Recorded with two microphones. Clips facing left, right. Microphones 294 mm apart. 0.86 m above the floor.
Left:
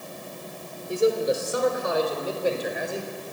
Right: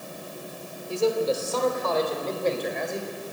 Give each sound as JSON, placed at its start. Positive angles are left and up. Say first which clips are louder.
{"t": 0.9, "sound": "a man speaking", "louder": "left 2 dB", "side_deg": 20, "distance_m": 3.0}